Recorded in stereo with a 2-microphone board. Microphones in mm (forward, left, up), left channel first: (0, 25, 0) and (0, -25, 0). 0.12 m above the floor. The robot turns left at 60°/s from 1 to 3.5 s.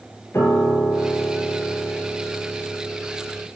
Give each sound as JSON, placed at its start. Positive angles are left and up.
{"t": 0.3, "sound": "a piano", "azimuth_deg": 75, "distance_m": 2.5}